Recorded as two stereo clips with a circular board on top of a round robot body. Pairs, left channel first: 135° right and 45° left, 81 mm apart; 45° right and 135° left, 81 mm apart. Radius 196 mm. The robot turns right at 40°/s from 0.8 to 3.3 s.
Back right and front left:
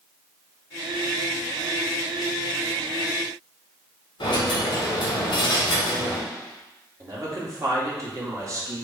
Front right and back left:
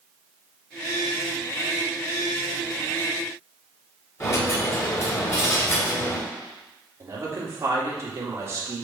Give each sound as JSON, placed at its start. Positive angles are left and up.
{"t": 4.2, "sound": "a dropped coin", "azimuth_deg": -105, "distance_m": 1.8}
{"t": 7.0, "sound": "a man speaking", "azimuth_deg": 85, "distance_m": 2.0}